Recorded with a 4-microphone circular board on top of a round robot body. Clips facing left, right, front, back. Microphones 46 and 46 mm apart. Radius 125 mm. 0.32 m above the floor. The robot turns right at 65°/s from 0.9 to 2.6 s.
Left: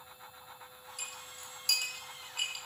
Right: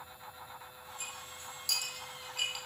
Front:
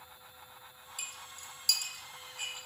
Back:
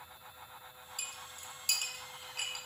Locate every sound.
1.0 s a clink: 85° left, 2.0 m; by 2.6 s 170° right, 2.0 m